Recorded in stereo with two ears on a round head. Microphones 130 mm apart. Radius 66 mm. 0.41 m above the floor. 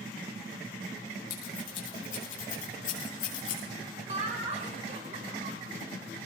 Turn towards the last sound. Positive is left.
turn(degrees=-45)  # may be behind; listen again after turning